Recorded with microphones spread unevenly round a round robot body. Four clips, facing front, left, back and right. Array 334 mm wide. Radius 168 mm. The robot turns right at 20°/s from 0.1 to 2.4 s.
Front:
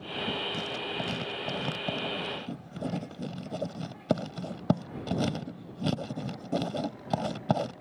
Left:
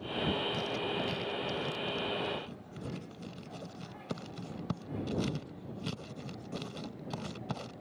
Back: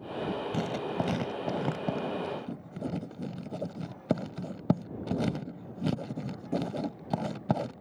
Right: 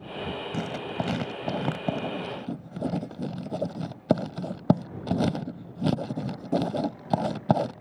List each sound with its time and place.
0.5 s writing: 120° right; by 7.8 s 85° right